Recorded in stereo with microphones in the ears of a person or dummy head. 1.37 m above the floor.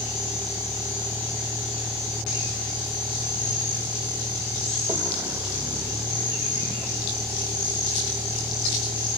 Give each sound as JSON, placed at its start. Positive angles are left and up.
{"t": 0.0, "sound": "a vehicle", "side_deg": -5}